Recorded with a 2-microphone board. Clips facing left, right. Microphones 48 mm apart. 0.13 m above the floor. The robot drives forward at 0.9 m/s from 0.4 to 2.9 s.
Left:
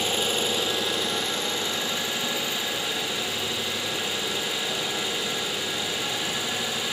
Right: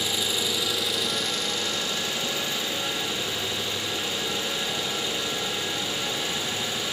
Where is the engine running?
45° left (ahead or behind), 1.6 m; by 6.9 s 20° left (ahead or behind), 3.5 m.